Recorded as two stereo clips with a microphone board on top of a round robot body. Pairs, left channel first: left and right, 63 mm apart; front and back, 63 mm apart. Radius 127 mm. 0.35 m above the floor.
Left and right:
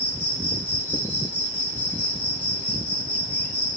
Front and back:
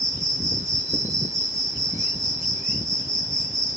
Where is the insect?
155° left, 0.9 m.